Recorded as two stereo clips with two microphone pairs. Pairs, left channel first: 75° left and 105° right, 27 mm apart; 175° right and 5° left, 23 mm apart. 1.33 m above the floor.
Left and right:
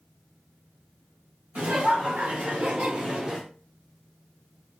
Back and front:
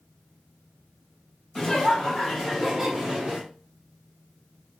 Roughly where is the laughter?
Behind right.